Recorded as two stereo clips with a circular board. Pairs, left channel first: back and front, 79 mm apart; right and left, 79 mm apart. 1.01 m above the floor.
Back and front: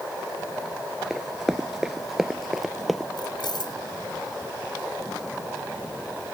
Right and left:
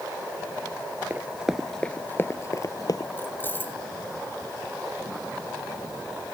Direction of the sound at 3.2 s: 155° right.